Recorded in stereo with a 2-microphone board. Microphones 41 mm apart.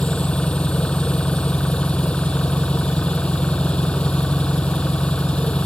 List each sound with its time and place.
0.0 s an engine running: 25° left (ahead or behind)